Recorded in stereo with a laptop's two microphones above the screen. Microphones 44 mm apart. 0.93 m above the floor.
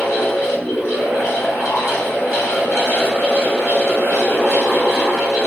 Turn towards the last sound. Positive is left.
turn(degrees=75)  # may be behind; listen again after turning